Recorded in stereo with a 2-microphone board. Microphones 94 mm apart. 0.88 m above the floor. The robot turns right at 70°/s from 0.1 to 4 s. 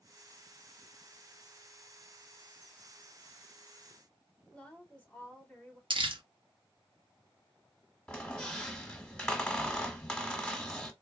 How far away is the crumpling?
About 0.9 m.